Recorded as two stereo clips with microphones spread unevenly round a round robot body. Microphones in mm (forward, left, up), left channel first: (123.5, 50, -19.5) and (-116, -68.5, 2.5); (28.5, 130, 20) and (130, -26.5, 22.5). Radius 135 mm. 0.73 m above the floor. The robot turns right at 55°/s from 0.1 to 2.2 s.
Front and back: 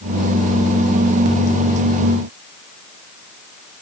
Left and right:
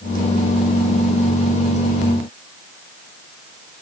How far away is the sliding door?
No sliding door in this recording.